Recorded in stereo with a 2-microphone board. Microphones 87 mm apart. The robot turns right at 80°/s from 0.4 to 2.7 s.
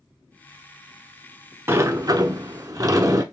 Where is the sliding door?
145° right, 0.6 m; by 3.2 s 60° right, 0.6 m.